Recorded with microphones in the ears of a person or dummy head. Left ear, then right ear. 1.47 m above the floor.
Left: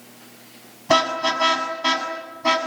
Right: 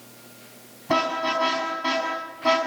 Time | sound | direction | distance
0.9 | a car horn | 25° left (ahead or behind) | 7 m